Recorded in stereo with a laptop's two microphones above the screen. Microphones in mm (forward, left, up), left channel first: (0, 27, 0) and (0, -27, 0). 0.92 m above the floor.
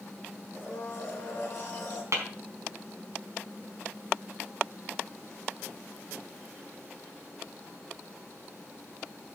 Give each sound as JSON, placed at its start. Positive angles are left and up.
{"t": 0.5, "sound": "a blender", "side_deg": 40, "distance_m": 4.5}
{"t": 2.1, "sound": "tapping", "side_deg": -60, "distance_m": 5.0}